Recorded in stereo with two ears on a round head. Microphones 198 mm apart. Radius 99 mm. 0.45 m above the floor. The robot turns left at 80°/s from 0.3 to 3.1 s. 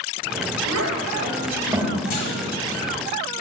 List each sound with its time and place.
0.7 s a child speaking: 65° right (ahead or behind), 1.1 m; by 2.0 s centre (ahead or behind), 1.1 m
2.1 s a clunk: 40° left (ahead or behind), 1.5 m; by 2.5 s 50° left (ahead or behind), 1.5 m